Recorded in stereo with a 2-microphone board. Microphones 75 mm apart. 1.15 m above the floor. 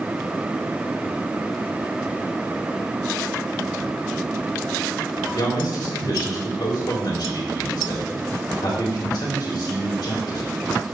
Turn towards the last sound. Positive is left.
turn(degrees=60)  # may be behind; listen again after turning